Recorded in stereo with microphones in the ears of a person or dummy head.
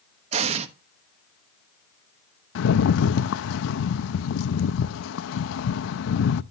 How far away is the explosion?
About 1.1 m.